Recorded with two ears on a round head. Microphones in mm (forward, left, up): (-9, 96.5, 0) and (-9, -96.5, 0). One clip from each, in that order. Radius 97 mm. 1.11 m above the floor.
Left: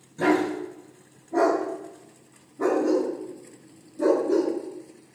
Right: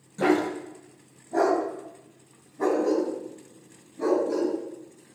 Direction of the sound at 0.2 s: 35° right (ahead or behind).